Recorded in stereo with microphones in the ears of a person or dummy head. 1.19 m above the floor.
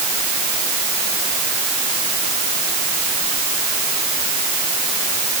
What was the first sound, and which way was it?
Only background noise.